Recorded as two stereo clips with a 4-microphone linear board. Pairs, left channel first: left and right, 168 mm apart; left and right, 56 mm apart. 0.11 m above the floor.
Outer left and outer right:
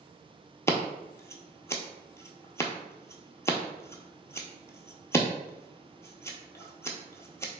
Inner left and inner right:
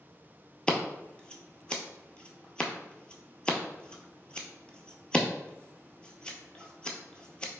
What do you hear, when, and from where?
0.7 s scissors: 15° left (ahead or behind), 0.6 m